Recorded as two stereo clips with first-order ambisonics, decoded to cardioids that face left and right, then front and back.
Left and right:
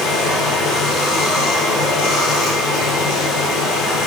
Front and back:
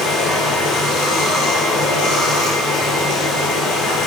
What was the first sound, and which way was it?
Running water, 50° left.